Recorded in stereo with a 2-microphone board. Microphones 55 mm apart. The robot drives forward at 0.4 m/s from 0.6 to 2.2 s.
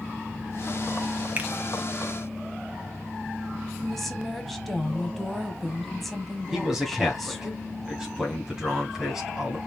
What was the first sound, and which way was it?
A finger snap, 30° right (ahead or behind).